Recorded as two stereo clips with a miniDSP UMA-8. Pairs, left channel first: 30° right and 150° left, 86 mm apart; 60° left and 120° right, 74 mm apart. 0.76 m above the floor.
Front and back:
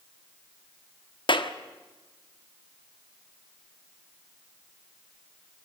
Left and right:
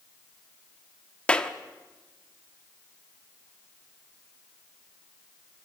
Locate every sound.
1.3 s a clap: 15° right, 1.2 m